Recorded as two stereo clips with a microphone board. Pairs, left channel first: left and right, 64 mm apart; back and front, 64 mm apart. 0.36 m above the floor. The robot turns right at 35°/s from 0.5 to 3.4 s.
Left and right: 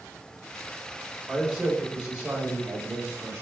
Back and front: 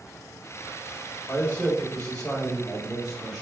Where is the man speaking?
150° right, 1.1 m; by 3.4 s 80° right, 1.1 m.